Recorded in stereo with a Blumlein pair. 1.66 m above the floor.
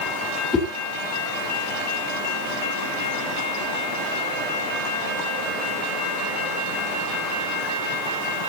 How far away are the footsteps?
No footsteps in this recording.